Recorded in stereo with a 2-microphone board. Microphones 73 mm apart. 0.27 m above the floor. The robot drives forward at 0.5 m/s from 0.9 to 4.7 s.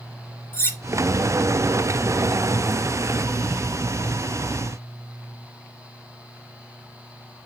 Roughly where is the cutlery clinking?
Left.